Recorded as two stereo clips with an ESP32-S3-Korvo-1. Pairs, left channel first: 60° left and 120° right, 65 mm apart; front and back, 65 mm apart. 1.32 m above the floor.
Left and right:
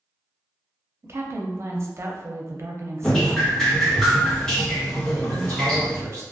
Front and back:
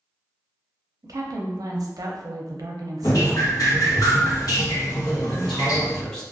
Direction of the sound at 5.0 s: 80° right.